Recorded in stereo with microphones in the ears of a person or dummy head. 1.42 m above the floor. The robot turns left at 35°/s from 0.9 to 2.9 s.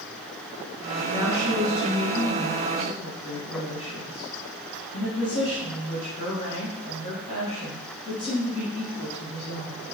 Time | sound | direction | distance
1.1 | a woman speaking | 155° right | 1.5 m